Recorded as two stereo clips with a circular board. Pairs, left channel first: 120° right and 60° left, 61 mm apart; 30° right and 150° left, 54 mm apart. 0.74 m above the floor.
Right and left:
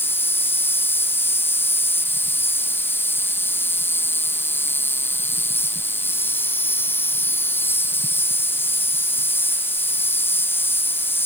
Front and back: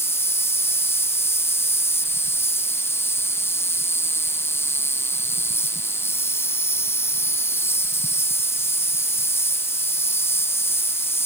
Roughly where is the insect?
Ahead right.